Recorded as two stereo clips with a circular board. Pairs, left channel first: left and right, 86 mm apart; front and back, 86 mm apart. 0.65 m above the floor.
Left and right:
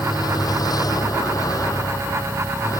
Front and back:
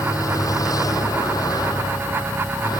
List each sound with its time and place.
0.0 s a vehicle: 45° left; by 2.8 s 40° left